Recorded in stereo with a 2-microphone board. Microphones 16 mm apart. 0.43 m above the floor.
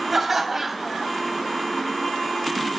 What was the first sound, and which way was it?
Laughter, 20° right (ahead or behind).